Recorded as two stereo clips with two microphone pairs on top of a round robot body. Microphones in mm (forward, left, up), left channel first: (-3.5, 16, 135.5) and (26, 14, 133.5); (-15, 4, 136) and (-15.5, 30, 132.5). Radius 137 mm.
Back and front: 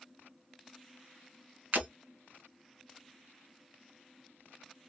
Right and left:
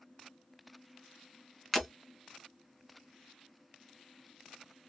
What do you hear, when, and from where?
1.7 s breaking glass: 5° right, 1.6 m